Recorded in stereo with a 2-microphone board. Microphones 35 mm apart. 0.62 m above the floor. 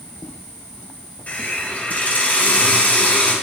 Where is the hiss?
50° left (ahead or behind), 2 m.